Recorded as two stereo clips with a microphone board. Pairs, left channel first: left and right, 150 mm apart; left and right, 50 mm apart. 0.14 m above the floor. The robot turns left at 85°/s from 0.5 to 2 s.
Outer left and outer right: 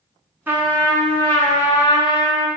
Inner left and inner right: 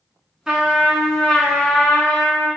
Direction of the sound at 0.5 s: 15° right (ahead or behind).